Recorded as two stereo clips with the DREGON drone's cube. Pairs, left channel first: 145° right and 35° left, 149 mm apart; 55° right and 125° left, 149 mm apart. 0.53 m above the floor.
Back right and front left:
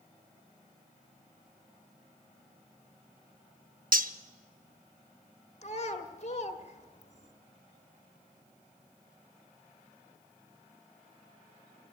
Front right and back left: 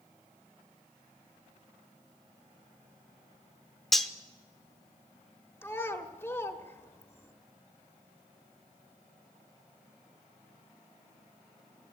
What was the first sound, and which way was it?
Cutlery clinking, 30° left.